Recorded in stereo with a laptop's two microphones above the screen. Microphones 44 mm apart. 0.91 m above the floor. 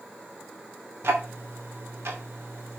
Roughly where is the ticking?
Right.